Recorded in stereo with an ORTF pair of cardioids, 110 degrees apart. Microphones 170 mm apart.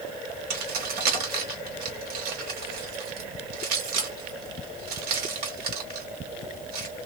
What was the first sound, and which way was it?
Keys jangling, 65° right.